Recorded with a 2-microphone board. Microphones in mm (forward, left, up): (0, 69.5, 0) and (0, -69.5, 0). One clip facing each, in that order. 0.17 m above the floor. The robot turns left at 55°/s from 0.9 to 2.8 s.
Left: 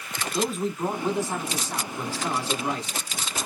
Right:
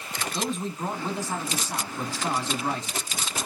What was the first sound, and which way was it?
A man speaking, 10° left (ahead or behind).